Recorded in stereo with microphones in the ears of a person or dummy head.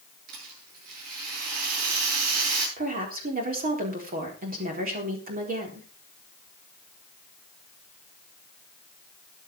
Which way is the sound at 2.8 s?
45° right (ahead or behind).